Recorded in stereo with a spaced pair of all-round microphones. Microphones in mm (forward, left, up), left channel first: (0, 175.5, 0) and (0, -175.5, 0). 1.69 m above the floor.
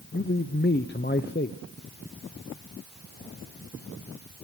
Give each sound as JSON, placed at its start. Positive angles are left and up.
{"t": 0.1, "sound": "a man speaking", "side_deg": 30, "distance_m": 0.7}